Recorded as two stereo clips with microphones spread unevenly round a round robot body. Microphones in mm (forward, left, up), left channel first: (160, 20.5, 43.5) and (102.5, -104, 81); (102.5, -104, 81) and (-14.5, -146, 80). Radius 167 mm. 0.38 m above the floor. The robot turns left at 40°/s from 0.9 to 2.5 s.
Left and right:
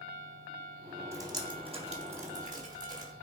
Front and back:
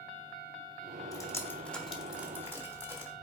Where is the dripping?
35° right, 1.4 m; by 3.1 s 90° right, 1.4 m.